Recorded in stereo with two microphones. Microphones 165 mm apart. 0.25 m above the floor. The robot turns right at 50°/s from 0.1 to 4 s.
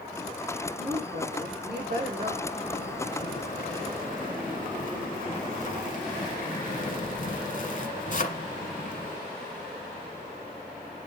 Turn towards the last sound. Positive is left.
turn(degrees=120)